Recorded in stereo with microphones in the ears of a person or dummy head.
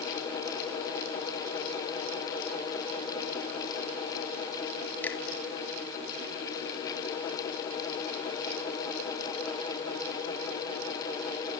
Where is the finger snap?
10° left (ahead or behind), 3 m.